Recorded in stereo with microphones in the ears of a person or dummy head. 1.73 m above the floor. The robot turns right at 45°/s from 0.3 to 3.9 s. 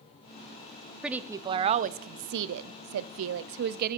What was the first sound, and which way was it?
A woman speaking, 175° right.